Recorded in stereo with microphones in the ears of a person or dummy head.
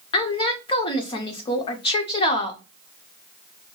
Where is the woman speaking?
35° left (ahead or behind), 0.7 m.